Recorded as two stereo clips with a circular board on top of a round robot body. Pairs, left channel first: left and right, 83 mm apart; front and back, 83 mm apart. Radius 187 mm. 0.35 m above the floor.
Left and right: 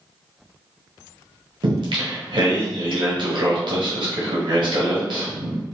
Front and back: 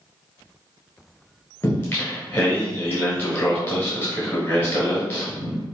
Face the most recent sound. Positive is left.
turn(degrees=-70)